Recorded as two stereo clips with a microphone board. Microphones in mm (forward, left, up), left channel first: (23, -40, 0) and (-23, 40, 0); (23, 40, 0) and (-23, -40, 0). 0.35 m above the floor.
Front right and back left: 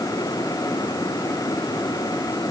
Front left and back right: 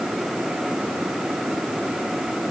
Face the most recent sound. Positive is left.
No sound to turn to.